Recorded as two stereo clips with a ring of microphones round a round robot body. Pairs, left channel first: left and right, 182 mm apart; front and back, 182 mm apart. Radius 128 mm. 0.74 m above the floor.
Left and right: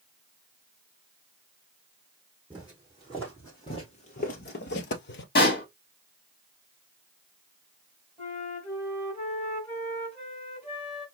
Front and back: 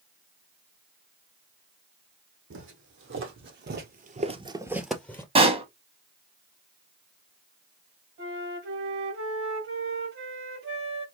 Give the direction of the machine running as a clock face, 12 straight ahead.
I don't hear a machine running.